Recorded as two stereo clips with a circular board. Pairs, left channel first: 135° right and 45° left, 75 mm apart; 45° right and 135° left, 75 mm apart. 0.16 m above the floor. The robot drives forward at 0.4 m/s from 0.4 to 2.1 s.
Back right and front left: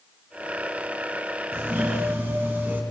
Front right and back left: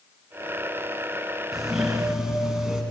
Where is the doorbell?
50° left, 1.7 m; by 2.8 s 65° left, 1.6 m.